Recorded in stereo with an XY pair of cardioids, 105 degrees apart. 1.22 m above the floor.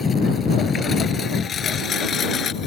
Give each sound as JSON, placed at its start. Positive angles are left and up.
{"t": 0.0, "sound": "a lawn mower", "azimuth_deg": 40}